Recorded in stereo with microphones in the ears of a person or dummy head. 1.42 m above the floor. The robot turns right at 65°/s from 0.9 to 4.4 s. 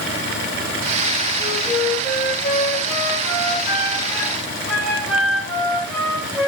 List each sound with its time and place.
1.4 s a flute: 20° right, 7.5 m; by 6.5 s 175° left, 7.5 m